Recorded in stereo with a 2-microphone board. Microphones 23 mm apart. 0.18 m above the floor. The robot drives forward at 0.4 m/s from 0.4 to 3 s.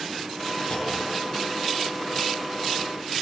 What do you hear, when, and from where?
0.7 s a clunk: 60° left (ahead or behind), 1.5 m